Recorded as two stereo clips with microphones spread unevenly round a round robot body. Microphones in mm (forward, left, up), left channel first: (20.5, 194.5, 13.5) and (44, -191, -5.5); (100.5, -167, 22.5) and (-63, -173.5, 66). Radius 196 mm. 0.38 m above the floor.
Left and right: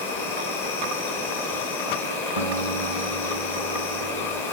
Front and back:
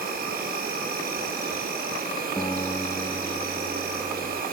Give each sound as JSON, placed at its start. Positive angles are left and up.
{"t": 0.0, "sound": "an insect", "azimuth_deg": 180, "distance_m": 2.5}
{"t": 2.4, "sound": "a guitar", "azimuth_deg": -75, "distance_m": 2.5}